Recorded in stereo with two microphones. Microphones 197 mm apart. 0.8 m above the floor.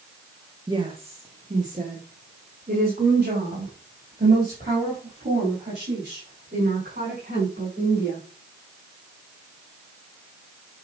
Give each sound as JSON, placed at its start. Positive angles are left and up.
{"t": 0.7, "sound": "a woman speaking", "side_deg": -25, "distance_m": 0.9}